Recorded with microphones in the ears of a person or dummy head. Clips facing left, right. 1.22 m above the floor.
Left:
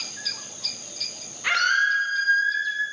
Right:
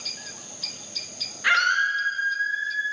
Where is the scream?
15° right (ahead or behind), 1.4 m; by 2.8 s 50° left (ahead or behind), 2.5 m.